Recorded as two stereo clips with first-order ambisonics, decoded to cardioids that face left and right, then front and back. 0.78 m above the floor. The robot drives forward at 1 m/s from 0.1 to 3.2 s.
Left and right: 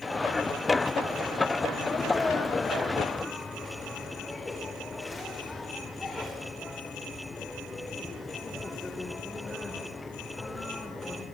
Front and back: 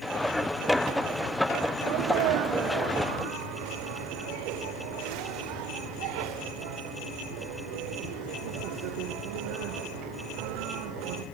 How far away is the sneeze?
About 1.2 m.